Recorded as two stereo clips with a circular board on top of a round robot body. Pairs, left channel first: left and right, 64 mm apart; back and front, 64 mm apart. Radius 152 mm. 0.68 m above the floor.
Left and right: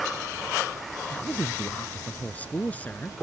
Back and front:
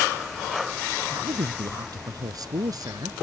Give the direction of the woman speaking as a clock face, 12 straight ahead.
11 o'clock.